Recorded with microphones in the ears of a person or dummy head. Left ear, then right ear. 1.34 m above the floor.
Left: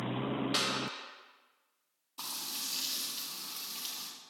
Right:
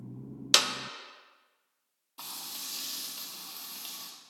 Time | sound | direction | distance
0.5 | a clap | 70° right (ahead or behind) | 0.5 m
2.2 | frying | centre (ahead or behind) | 0.9 m